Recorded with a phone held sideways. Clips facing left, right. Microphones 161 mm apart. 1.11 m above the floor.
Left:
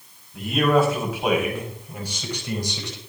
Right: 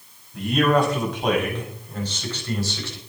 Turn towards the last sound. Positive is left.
turn(degrees=20)  # may be behind; listen again after turning